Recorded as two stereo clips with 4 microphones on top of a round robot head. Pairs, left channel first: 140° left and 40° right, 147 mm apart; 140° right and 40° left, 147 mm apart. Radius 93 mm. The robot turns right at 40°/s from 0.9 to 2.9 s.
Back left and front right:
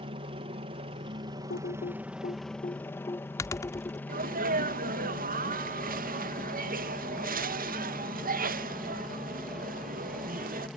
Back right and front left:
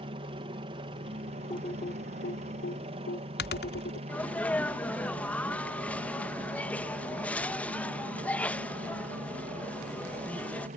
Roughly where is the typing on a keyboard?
Behind left.